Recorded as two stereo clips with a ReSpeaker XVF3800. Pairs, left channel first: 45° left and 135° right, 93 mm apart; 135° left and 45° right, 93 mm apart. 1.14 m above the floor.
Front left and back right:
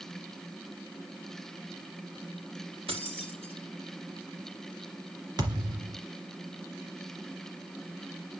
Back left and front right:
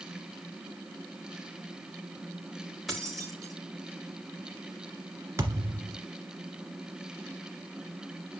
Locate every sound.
2.9 s keys jangling: 135° right, 3.5 m
5.4 s a thud: 100° right, 2 m